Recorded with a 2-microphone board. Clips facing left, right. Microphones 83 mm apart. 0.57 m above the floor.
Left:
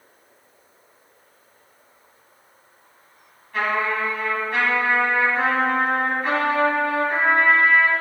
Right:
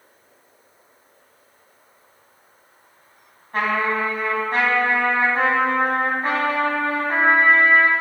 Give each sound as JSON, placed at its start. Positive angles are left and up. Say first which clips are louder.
{"t": 3.5, "sound": "a trumpet", "louder": "right 1 dB", "side_deg": -40, "distance_m": 3.0}